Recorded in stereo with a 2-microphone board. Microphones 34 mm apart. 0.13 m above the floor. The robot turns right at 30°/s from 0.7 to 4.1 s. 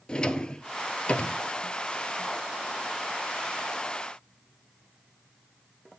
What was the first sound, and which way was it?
A drawer, 25° left (ahead or behind).